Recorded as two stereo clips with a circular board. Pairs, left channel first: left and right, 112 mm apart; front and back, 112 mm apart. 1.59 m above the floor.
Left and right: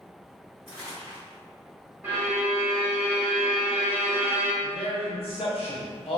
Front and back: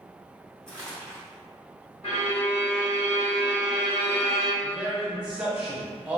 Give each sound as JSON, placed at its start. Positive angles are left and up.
{"t": 0.7, "sound": "crumpling", "azimuth_deg": 80, "distance_m": 1.6}
{"t": 2.0, "sound": "a violin", "azimuth_deg": -20, "distance_m": 1.3}
{"t": 4.6, "sound": "a man speaking", "azimuth_deg": 100, "distance_m": 0.9}